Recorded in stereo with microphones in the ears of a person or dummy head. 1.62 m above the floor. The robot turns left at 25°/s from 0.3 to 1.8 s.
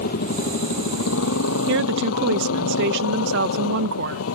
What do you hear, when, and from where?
0.0 s a motorcycle: 130° left; by 4.4 s 95° left
1.7 s a woman speaking: 70° right (ahead or behind); by 4.2 s 65° right (ahead or behind)